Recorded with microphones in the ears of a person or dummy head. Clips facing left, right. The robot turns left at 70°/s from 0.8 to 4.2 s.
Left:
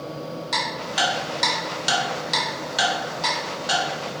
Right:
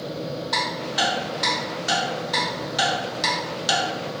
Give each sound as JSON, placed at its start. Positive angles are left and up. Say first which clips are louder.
{"t": 0.5, "sound": "ticking", "louder": "right 1 dB", "side_deg": 30, "distance_m": 1.3}